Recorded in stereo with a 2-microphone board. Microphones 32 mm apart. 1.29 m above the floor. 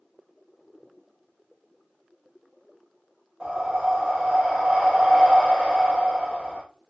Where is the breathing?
40° right (ahead or behind), 1.2 m.